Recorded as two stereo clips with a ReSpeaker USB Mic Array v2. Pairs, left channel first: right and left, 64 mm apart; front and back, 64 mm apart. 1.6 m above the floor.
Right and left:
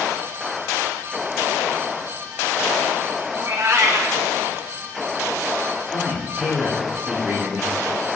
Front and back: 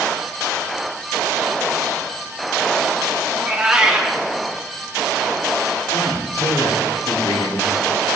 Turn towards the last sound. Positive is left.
turn(degrees=30)